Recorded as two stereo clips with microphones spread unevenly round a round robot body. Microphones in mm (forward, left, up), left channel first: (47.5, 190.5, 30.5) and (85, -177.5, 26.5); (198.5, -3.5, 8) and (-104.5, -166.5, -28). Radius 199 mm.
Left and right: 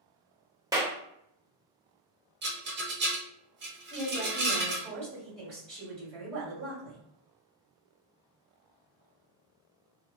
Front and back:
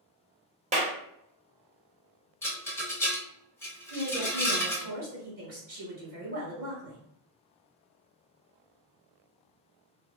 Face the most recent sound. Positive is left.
turn(degrees=-145)